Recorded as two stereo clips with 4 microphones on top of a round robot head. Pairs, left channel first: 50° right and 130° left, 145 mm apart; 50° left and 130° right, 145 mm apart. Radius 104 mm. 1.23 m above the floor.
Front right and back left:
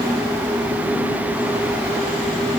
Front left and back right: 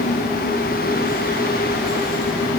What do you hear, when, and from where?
Only background noise.